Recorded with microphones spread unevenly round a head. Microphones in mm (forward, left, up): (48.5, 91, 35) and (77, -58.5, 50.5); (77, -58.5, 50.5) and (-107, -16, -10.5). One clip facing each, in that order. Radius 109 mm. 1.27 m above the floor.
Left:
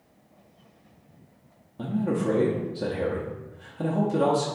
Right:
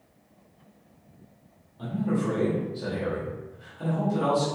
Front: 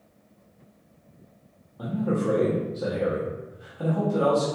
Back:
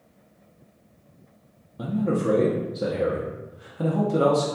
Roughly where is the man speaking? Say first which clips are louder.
Left 1 dB, back 2 dB; behind left.